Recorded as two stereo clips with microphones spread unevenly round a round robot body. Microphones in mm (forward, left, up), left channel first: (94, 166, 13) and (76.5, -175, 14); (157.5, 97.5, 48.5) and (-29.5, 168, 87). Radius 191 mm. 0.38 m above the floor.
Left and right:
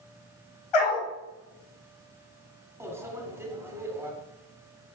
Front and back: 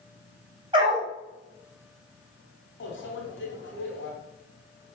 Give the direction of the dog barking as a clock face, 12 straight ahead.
9 o'clock.